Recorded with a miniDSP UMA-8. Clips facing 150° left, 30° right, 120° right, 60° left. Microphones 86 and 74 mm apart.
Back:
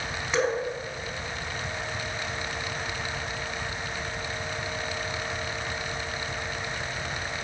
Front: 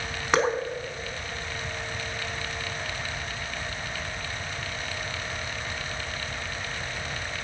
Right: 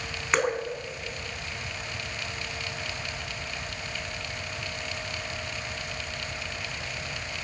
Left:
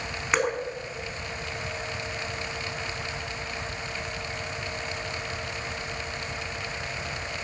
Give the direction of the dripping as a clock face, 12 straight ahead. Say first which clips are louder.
Front 2 dB, even; 1 o'clock.